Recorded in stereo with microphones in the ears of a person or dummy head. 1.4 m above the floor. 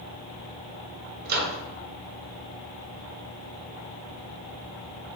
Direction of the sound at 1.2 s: 55° right (ahead or behind).